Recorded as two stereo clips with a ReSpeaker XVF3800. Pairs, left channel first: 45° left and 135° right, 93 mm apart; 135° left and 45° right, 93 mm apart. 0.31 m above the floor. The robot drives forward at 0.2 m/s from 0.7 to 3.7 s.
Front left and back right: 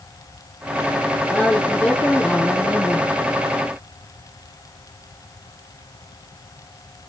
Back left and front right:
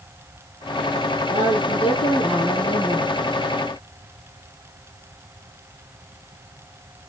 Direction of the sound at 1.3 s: 120° left.